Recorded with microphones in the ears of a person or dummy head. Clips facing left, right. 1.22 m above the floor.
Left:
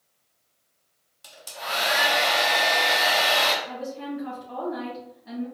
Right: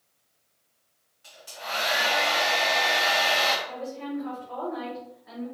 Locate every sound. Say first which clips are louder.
1.2 s a hair dryer: left 3 dB; 55° left (ahead or behind), 0.9 m
3.6 s a woman speaking: left 1 dB; 50° left (ahead or behind), 1.9 m